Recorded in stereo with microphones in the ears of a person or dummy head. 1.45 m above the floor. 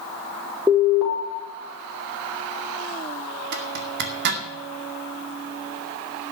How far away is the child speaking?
No child speaking in this recording.